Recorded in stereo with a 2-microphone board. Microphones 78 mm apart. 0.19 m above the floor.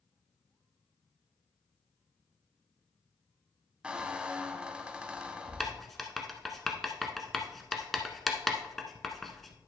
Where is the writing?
Centre (ahead or behind), 1.0 m.